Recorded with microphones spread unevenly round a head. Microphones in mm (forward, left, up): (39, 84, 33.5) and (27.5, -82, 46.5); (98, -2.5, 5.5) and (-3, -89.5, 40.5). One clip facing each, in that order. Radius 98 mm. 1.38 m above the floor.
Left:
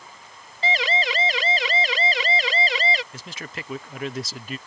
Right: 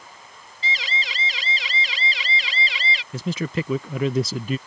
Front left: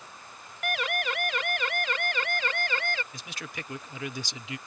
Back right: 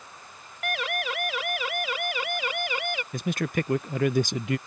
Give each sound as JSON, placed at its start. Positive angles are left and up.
{"t": 0.6, "sound": "a siren", "azimuth_deg": 130}
{"t": 3.1, "sound": "a man speaking", "azimuth_deg": -100}